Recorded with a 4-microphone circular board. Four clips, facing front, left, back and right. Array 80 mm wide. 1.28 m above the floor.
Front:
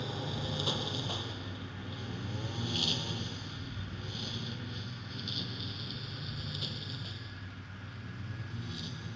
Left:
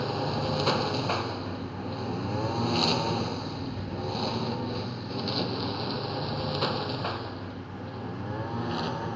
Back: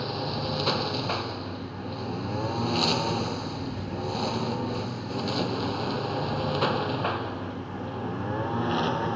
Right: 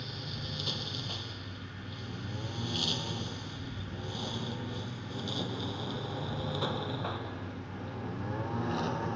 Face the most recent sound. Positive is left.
turn(degrees=175)